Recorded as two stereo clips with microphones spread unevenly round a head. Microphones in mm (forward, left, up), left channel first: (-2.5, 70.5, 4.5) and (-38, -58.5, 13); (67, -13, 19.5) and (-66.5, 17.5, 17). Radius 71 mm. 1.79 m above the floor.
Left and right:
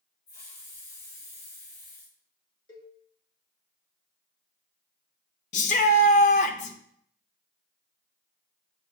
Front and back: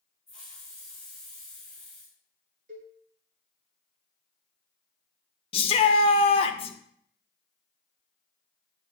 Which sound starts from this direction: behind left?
A cowbell, at 2.7 s.